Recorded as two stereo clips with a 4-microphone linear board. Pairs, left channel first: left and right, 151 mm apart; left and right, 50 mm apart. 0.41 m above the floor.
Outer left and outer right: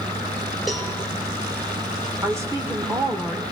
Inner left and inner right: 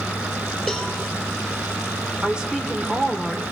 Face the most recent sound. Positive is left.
turn(degrees=-20)  # may be behind; listen again after turning